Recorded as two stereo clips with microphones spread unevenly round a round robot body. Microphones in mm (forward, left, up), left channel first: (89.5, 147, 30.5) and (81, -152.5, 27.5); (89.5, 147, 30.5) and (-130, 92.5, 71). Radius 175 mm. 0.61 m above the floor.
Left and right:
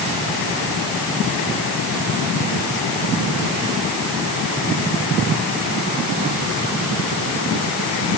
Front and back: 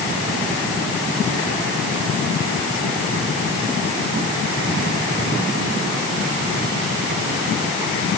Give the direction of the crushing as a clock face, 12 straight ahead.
I don't hear crushing.